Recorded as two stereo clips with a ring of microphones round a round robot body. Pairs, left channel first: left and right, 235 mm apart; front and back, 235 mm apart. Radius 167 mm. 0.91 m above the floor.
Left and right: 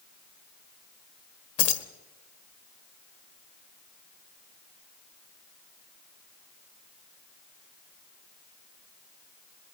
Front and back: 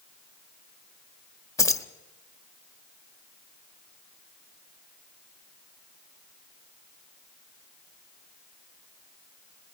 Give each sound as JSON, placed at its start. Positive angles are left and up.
{"t": 1.6, "sound": "keys jangling", "azimuth_deg": 80, "distance_m": 1.3}